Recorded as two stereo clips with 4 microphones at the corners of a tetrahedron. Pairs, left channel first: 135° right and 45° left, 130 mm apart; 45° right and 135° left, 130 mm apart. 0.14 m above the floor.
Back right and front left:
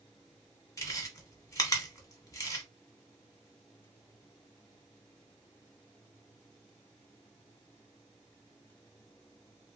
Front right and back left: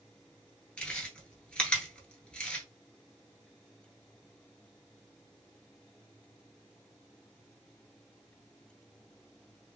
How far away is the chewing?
About 1.0 m.